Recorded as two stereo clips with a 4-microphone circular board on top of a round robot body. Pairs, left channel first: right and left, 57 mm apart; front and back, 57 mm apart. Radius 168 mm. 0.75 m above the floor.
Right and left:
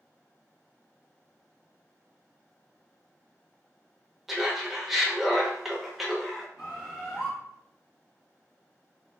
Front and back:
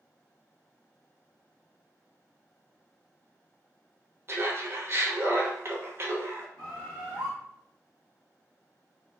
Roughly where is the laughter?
Behind.